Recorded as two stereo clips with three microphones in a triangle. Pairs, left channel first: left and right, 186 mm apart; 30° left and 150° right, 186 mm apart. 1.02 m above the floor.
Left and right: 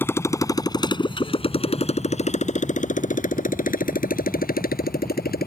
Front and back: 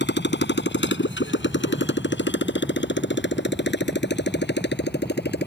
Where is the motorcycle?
10° left; by 5.5 s 55° left.